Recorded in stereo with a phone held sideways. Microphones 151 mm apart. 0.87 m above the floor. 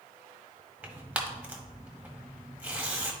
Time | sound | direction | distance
0.8 | tearing paper | 10° right (ahead or behind) | 1.1 m